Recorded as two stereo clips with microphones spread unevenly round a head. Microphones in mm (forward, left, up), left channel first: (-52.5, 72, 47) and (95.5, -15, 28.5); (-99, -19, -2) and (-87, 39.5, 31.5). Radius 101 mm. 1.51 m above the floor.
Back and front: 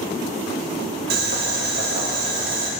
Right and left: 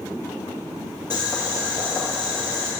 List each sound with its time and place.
1.1 s boiling: straight ahead, 3 m